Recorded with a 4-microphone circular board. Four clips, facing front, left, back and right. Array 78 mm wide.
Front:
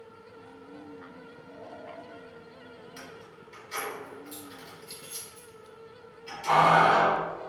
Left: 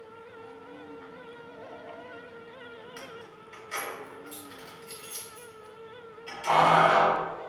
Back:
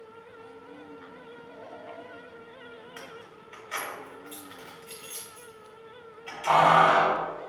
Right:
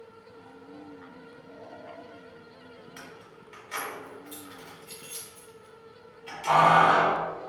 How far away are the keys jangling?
About 0.8 m.